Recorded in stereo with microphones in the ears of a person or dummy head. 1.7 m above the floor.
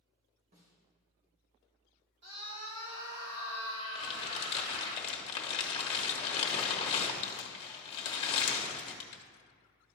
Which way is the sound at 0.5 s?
45° right (ahead or behind).